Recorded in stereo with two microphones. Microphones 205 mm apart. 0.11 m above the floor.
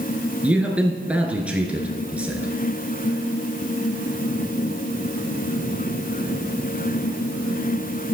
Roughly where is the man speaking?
Centre.